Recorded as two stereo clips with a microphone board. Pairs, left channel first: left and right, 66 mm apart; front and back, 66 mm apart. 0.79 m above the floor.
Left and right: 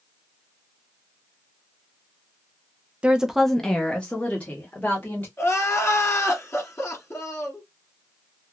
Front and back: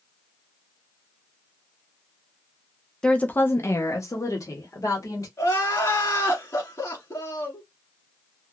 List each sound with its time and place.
3.0 s a woman speaking: 55° right, 0.6 m; by 5.3 s 25° left, 1.8 m
5.4 s crying: 40° left, 1.7 m